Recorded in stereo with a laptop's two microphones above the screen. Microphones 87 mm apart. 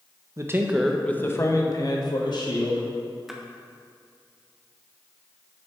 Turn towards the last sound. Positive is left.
turn(degrees=-5)  # may be behind; listen again after turning